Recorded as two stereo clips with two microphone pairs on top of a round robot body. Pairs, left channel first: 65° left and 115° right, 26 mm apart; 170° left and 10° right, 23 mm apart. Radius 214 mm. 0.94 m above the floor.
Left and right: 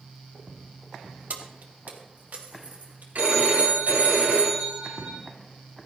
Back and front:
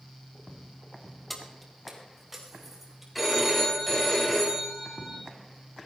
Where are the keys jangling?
100° right, 1.6 m; by 3.0 s 85° right, 3.5 m.